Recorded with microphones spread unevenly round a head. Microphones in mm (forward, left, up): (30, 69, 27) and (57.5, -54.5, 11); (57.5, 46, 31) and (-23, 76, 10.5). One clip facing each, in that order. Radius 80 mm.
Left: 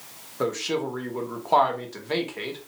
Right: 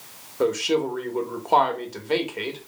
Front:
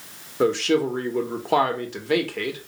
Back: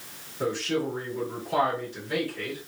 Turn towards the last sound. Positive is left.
turn(degrees=0)